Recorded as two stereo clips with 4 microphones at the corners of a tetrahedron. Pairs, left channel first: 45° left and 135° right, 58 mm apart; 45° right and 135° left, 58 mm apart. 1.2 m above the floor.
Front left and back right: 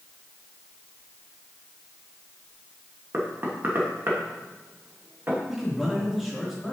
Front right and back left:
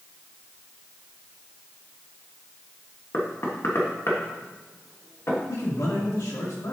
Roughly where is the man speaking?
Ahead right.